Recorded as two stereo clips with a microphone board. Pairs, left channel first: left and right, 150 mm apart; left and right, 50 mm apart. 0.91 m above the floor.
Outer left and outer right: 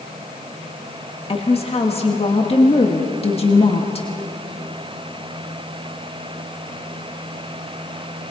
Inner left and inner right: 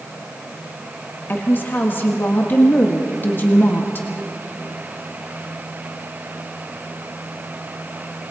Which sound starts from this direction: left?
A woman speaking, at 1.3 s.